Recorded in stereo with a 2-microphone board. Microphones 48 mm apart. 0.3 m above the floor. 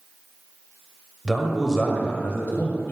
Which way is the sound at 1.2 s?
10° right (ahead or behind).